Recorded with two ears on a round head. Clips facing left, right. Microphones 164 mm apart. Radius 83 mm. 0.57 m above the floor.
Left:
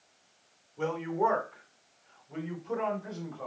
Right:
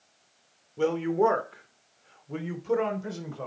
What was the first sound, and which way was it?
A woman speaking, 45° right (ahead or behind).